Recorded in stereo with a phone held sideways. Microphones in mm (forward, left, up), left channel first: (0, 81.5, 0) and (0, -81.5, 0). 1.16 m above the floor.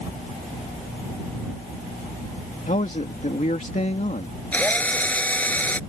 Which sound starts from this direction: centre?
A drill, at 4.5 s.